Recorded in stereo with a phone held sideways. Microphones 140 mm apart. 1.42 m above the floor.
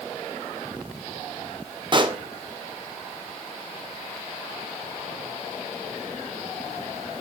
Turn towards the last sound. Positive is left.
turn(degrees=-35)  # may be behind; listen again after turning